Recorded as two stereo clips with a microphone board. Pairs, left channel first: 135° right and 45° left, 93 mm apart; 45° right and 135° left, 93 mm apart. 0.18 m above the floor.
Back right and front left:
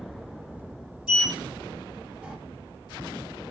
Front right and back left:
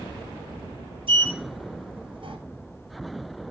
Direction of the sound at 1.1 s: 125° left.